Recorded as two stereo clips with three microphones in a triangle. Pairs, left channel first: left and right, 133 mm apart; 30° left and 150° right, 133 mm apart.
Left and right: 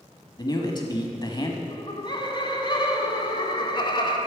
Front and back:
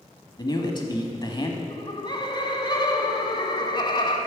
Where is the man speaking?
60° left, 1.2 m.